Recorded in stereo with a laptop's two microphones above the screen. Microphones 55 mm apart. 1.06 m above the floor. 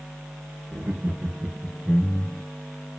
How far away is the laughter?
About 1.2 m.